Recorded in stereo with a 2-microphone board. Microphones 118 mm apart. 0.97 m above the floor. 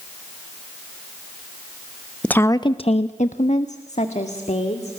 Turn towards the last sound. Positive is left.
turn(degrees=65)  # may be behind; listen again after turning